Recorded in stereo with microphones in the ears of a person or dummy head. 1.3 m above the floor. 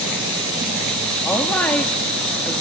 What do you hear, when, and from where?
1.2 s a woman speaking: 10° left (ahead or behind), 2.5 m